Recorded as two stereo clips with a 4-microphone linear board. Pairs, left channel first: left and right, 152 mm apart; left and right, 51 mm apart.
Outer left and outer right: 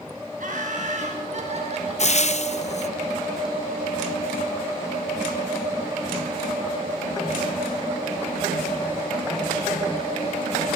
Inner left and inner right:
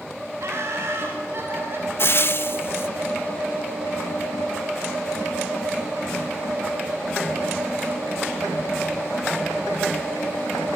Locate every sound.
0.4 s laughter: 60° right (ahead or behind), 6 m; by 2.2 s 40° right (ahead or behind), 5.5 m
2.0 s frying: 50° left (ahead or behind), 0.7 m